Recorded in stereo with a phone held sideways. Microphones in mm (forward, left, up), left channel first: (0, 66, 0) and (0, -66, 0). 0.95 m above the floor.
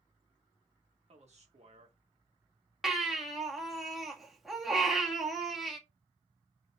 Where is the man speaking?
55° right (ahead or behind), 1.8 m.